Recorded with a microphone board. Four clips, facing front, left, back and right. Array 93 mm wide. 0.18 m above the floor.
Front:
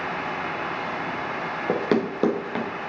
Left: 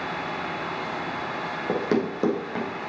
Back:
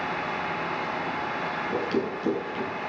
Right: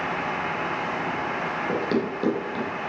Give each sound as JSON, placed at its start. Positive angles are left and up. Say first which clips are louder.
{"t": 1.7, "sound": "running footsteps", "louder": "left 3 dB, front 6 dB", "azimuth_deg": 15, "distance_m": 2.0}